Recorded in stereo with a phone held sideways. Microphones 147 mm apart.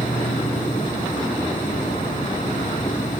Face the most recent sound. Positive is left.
turn(degrees=60)  # may be behind; listen again after turning